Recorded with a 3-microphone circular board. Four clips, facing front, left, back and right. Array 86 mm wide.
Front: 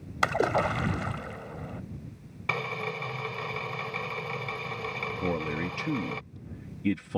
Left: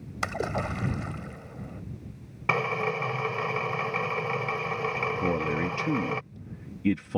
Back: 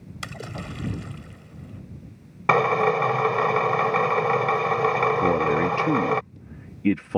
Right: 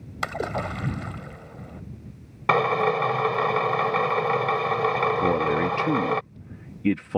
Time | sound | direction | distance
0.2 | a splash | 10° right | ?
2.5 | a drill | 145° right | ?
5.2 | a man speaking | 145° right | ?